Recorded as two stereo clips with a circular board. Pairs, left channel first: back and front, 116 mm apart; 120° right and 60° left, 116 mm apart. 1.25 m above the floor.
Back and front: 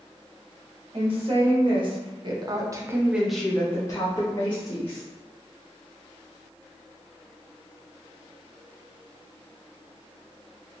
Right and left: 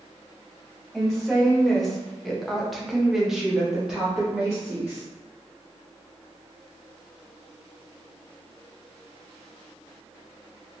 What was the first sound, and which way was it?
A woman speaking, 35° right.